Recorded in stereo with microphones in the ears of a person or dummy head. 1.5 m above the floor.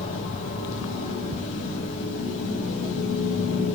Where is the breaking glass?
I don't hear breaking glass.